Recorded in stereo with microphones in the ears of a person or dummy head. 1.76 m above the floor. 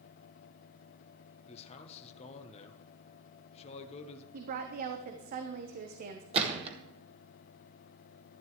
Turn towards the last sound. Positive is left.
turn(degrees=-35)  # may be behind; listen again after turning